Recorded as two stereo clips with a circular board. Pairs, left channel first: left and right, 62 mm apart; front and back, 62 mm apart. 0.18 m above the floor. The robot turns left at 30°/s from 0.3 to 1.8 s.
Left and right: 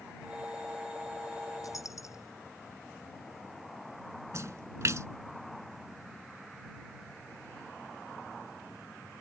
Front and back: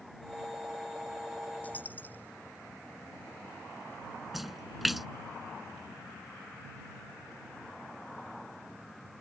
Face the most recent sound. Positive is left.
turn(degrees=-95)